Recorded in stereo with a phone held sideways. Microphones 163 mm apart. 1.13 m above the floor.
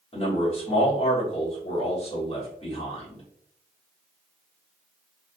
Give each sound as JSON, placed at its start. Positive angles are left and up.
{"t": 0.1, "sound": "a man speaking", "side_deg": 35, "distance_m": 1.6}